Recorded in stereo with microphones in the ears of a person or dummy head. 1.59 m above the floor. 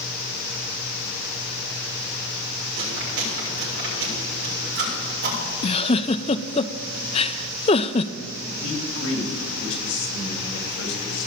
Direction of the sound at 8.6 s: 70° left (ahead or behind).